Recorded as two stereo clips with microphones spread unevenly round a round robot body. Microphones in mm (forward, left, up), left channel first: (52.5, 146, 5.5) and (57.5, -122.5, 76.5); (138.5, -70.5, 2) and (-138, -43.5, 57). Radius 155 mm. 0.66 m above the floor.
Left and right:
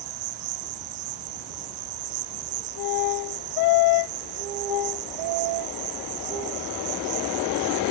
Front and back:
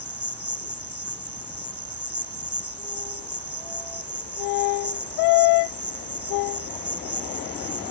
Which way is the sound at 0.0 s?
100° right.